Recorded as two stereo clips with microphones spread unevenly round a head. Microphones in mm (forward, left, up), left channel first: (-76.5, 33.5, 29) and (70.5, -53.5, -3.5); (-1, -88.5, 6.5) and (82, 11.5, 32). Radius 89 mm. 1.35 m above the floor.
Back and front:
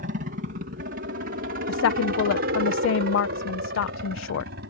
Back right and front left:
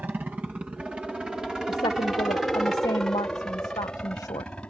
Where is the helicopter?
30° right; by 4.7 s 50° right.